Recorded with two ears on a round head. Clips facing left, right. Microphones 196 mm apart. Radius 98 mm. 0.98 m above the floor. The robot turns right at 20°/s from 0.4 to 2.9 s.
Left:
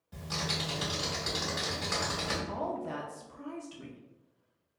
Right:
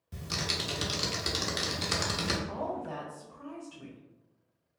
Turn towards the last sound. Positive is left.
turn(degrees=25)  # may be behind; listen again after turning